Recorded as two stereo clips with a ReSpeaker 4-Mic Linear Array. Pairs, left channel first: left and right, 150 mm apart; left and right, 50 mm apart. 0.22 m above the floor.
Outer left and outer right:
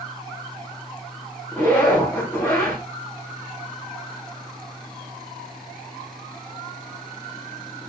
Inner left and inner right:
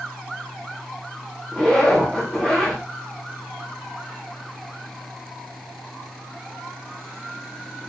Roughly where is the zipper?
Centre.